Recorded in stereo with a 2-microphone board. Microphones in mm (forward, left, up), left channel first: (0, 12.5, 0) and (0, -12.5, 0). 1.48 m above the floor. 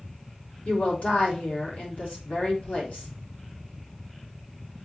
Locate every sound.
0.7 s a woman speaking: 80° left, 3.5 m